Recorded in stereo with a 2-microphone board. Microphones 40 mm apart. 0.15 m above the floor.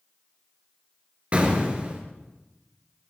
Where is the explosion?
35° right (ahead or behind), 2.5 m.